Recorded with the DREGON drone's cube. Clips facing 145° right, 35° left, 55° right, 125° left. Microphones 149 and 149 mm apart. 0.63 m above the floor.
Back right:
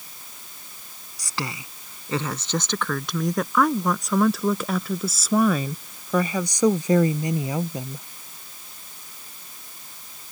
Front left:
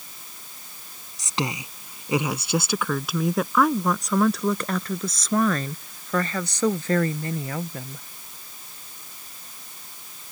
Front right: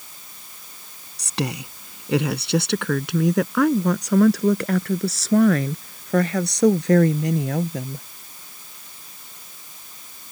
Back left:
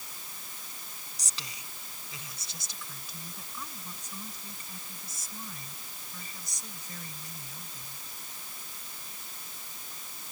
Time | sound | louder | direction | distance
1.2 | a woman speaking | front left 4 dB, front right 23 dB | 35° right | ?